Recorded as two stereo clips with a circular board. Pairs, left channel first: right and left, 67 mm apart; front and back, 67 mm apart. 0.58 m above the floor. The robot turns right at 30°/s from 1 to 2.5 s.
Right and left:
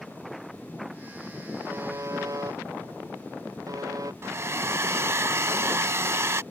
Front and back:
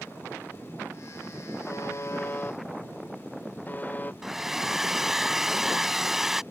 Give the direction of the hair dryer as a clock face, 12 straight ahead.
9 o'clock.